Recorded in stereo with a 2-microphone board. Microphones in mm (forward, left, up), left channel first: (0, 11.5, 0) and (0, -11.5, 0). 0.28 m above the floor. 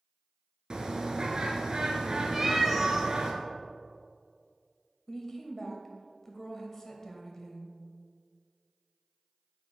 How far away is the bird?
About 0.8 m.